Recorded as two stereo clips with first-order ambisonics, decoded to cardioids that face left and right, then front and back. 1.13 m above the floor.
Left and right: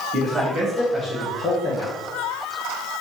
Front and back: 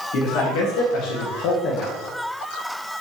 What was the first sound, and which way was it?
A man speaking, 30° right.